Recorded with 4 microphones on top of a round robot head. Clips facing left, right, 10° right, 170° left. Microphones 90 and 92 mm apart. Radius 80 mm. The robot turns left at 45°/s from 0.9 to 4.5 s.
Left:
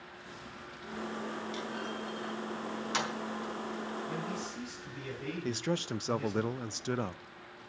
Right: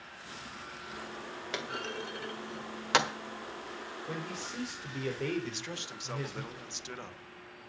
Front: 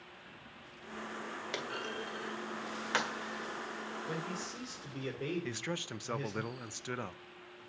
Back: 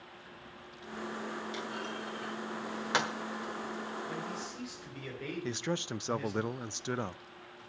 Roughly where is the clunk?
Ahead right.